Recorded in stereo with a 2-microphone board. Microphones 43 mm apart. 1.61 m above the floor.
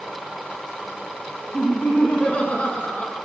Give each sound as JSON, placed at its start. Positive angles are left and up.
{"t": 1.5, "sound": "laughter", "side_deg": 35, "distance_m": 1.8}